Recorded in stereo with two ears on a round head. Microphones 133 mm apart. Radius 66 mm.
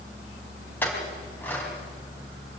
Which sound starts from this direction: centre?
A clink, at 0.8 s.